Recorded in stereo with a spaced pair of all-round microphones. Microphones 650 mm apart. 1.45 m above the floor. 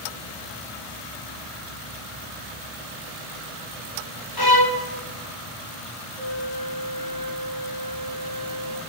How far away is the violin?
About 1.0 m.